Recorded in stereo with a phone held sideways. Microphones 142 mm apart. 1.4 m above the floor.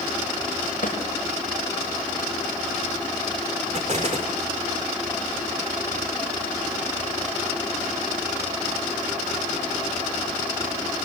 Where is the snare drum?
70° left (ahead or behind), 7 m.